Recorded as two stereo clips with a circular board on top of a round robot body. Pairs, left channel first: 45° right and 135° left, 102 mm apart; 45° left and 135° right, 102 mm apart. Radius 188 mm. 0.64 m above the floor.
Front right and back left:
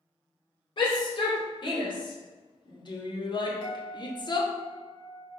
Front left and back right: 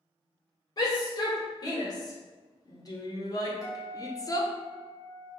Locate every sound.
0.8 s a shout: 5° right, 3.5 m
3.6 s a guitar: 10° right, 2.5 m